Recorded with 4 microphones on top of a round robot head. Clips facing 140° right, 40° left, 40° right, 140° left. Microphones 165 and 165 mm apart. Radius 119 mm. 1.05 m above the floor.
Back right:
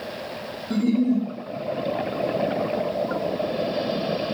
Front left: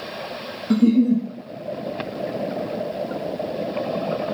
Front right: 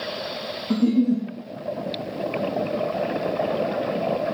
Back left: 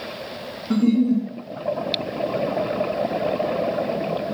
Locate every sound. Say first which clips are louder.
0.7 s a giggle: front left 5 dB, back left 1 dB; 50° left, 0.5 m